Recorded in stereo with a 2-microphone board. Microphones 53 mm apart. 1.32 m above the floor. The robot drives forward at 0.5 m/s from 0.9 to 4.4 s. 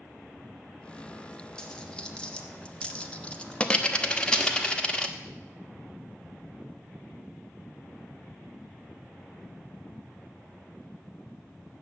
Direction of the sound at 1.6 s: 15° left (ahead or behind).